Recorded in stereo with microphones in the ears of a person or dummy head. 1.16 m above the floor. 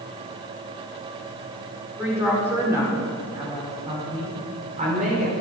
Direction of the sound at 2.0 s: 10° right (ahead or behind).